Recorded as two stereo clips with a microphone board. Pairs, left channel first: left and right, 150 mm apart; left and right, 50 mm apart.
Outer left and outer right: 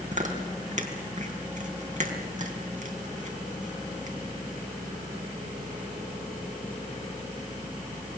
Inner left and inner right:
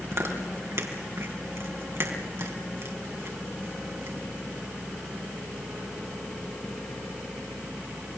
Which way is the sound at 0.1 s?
55° right (ahead or behind).